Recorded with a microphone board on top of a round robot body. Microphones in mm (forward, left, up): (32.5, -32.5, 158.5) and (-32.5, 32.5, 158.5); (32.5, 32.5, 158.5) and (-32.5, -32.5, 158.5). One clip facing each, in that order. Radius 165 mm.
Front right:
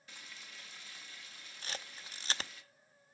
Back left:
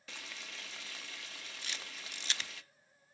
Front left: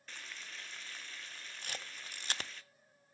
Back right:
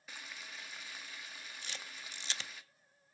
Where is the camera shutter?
5° left, 0.8 m.